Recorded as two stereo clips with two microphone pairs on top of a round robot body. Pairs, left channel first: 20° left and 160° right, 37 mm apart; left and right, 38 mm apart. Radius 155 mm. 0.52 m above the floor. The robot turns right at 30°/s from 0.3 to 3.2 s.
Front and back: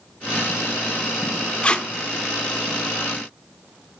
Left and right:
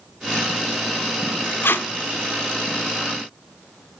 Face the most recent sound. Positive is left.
turn(degrees=120)